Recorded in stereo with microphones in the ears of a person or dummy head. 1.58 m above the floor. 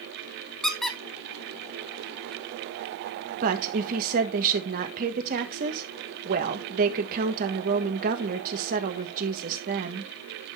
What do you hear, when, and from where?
0.6 s a squeak: centre (ahead or behind), 1.0 m
3.4 s a woman speaking: 45° right (ahead or behind), 1.6 m